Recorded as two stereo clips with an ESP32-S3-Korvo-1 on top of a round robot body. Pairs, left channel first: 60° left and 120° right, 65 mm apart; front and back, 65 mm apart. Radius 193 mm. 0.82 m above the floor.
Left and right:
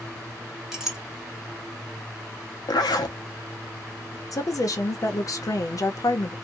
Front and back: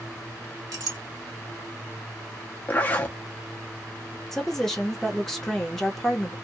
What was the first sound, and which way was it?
A clink, 155° left.